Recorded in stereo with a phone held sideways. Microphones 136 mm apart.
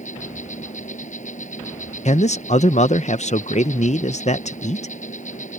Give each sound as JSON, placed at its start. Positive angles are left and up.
{"t": 0.0, "sound": "an insect", "side_deg": 65}
{"t": 2.0, "sound": "a man speaking", "side_deg": 55}